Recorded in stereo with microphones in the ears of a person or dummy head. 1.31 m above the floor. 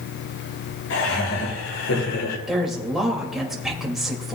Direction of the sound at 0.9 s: 75° left (ahead or behind).